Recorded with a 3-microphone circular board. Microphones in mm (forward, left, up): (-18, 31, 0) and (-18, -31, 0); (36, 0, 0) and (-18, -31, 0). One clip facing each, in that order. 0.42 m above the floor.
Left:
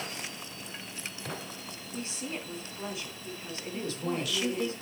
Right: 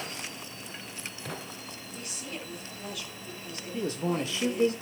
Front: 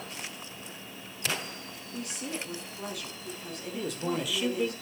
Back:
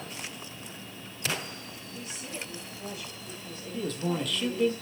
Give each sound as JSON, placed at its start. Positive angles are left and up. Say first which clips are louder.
{"t": 1.9, "sound": "a woman speaking", "louder": "left 4 dB, front 4 dB", "azimuth_deg": 30, "distance_m": 4.0}
{"t": 3.7, "sound": "a man speaking", "louder": "right 4 dB, back 1 dB", "azimuth_deg": -55, "distance_m": 1.7}